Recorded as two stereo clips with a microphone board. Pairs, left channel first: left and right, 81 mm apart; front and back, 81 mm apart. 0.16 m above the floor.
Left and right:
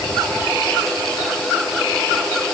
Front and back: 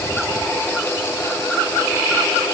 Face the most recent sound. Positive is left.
No sound to turn to.